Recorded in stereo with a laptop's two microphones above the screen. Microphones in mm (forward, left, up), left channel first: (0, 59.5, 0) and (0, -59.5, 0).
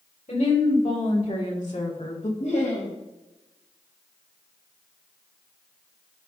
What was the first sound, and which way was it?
A woman speaking, 75° left (ahead or behind).